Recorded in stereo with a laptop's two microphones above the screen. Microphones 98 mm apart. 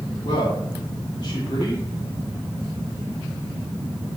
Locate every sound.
0.2 s a man speaking: 45° left (ahead or behind), 2.5 m